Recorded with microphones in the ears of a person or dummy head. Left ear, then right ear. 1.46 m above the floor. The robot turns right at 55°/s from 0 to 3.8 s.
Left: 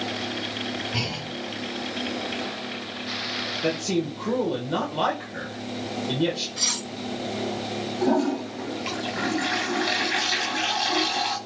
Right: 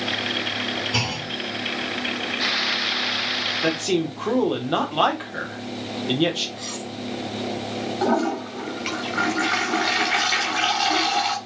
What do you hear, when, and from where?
0.9 s a clunk: 60° right (ahead or behind), 3.5 m; by 1.3 s 80° right, 3.5 m
3.6 s a man speaking: 40° right (ahead or behind), 1.7 m; by 6.5 s 45° right (ahead or behind), 1.7 m
6.6 s cutlery clinking: 45° left (ahead or behind), 1.0 m
8.0 s a toilet flushing: 30° right (ahead or behind), 2.0 m